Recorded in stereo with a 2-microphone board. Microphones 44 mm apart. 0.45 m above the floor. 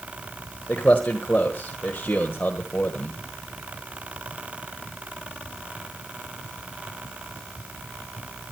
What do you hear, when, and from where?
0.7 s a man speaking: 30° left (ahead or behind), 1.5 m